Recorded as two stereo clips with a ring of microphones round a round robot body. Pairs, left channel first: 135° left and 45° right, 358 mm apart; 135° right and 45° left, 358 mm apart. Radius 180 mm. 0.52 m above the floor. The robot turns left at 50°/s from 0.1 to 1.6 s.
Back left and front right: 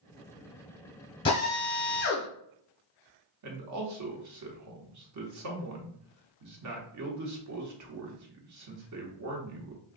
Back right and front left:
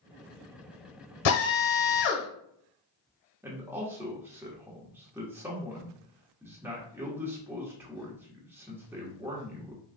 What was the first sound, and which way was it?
A drill, 145° right.